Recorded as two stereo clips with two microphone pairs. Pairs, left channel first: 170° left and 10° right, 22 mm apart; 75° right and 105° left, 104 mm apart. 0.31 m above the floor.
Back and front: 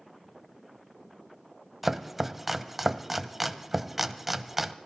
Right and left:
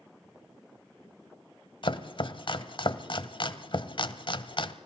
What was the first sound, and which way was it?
Chopping, 85° right.